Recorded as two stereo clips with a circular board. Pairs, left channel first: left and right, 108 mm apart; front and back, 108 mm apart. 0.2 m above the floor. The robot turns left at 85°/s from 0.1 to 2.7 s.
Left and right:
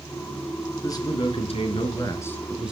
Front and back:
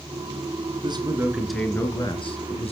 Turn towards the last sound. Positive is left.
turn(degrees=-10)